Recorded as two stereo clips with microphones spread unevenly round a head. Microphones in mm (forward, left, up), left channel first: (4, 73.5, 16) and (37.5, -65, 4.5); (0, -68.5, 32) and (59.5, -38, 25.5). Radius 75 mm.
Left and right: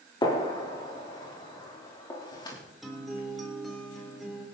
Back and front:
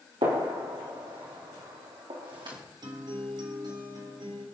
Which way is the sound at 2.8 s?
15° left.